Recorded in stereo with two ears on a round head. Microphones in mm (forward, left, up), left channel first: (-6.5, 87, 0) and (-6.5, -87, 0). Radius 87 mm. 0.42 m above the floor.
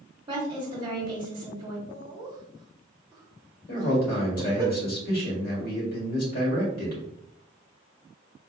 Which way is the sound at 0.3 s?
25° right (ahead or behind).